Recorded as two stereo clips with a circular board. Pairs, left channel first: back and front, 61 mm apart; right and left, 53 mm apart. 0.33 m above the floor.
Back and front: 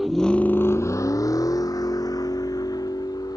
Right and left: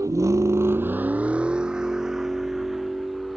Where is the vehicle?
85° left; by 3.4 s straight behind.